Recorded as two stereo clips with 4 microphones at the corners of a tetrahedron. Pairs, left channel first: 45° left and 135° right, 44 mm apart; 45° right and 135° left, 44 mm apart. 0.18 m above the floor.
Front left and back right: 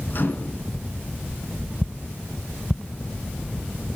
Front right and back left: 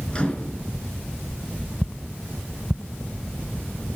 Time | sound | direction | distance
0.1 | a microwave | 20° left | 2 m